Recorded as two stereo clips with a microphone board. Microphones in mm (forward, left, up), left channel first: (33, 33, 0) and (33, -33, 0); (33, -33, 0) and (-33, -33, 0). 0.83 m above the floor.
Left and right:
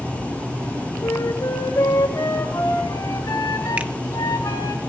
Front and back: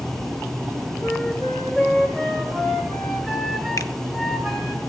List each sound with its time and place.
1.0 s a flute: 100° left, 1.7 m
3.8 s a finger snap: 25° right, 0.8 m